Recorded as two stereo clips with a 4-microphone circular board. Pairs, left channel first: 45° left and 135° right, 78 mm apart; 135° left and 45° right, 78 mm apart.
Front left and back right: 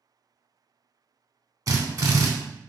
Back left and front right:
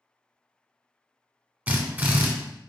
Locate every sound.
1.7 s a drill: 110° right, 0.7 m